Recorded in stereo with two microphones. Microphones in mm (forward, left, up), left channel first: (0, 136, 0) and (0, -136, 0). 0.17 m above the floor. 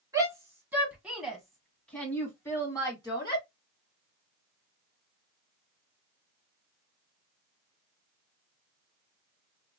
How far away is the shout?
About 1.5 m.